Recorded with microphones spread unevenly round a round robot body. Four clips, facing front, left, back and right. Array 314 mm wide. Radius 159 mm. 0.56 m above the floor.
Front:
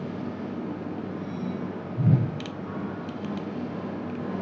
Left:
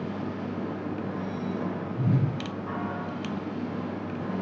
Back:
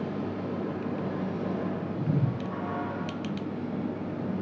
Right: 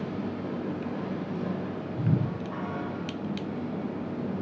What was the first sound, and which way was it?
A whoosh, 10° left.